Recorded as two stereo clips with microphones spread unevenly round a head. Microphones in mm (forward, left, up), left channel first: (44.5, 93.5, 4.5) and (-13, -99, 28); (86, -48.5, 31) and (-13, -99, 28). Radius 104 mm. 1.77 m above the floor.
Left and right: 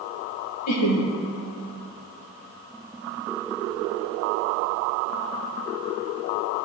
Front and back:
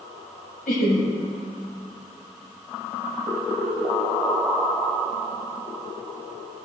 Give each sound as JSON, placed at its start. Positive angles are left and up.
{"t": 0.7, "sound": "laughter", "azimuth_deg": 70, "distance_m": 1.7}